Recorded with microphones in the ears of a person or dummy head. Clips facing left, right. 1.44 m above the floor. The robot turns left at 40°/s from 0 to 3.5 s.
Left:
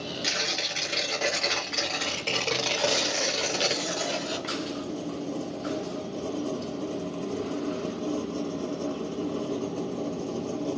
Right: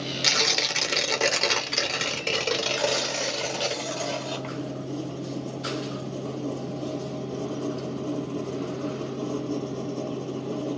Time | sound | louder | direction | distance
0.2 | tearing paper | right 4 dB | 75° right | 0.9 m
2.8 | tearing paper | right 1 dB | 160° right | 0.8 m